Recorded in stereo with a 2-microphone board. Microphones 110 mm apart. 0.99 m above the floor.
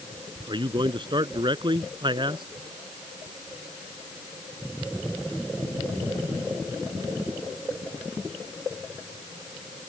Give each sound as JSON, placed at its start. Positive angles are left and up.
{"t": 0.5, "sound": "a man speaking", "side_deg": -45}